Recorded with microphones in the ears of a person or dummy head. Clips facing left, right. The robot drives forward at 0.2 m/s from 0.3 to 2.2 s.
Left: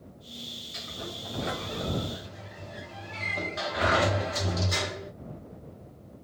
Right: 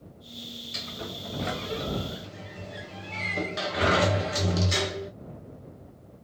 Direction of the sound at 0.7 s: 45° right (ahead or behind).